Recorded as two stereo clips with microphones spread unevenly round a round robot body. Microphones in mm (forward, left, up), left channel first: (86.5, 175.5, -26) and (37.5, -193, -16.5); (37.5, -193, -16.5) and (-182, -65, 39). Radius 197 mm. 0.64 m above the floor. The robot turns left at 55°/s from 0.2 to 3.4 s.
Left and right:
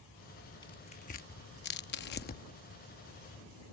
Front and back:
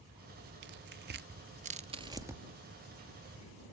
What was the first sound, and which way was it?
Tearing paper, 150° left.